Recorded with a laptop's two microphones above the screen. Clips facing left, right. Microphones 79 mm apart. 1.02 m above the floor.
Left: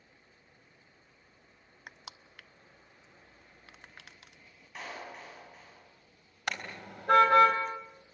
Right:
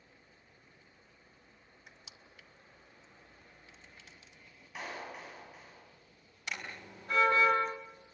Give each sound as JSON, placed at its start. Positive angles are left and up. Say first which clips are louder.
{"t": 1.9, "sound": "crushing", "louder": "left 9 dB", "side_deg": 70, "distance_m": 0.7}
{"t": 4.8, "sound": "a clap", "louder": "even", "side_deg": -5, "distance_m": 8.0}
{"t": 6.5, "sound": "a car horn", "louder": "left 5 dB", "side_deg": 75, "distance_m": 3.5}